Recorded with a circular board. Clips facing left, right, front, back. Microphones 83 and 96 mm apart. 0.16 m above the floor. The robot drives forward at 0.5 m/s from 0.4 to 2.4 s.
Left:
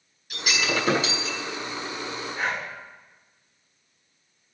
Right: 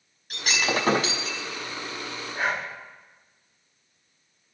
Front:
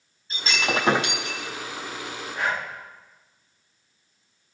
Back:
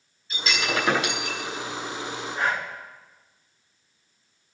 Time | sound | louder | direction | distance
0.3 | breaking glass | even, front 1 dB | 55° right | 5 m
2.4 | breathing | right 2 dB, back 1 dB | 125° right | 5.5 m